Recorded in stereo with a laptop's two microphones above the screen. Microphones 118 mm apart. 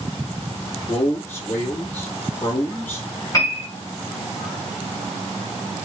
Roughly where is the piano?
Left.